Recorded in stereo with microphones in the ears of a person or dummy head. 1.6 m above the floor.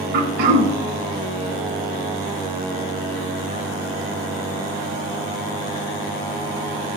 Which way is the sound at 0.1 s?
55° right (ahead or behind).